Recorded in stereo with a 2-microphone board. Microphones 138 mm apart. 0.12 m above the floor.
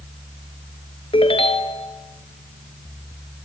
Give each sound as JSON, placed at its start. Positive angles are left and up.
{"t": 1.1, "sound": "a ringtone", "side_deg": 45, "distance_m": 1.2}